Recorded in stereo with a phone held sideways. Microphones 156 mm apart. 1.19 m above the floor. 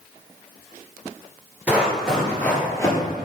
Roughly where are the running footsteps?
Centre.